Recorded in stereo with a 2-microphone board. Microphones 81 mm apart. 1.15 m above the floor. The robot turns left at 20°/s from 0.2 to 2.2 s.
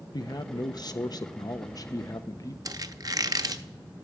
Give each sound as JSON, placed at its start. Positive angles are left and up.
{"t": 0.1, "sound": "a man speaking", "azimuth_deg": 95, "distance_m": 0.8}
{"t": 2.6, "sound": "a squeak", "side_deg": -50, "distance_m": 0.7}